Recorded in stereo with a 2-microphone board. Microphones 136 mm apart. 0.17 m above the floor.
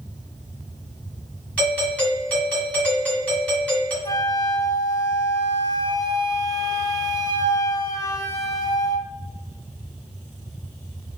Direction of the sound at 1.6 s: 10° left (ahead or behind).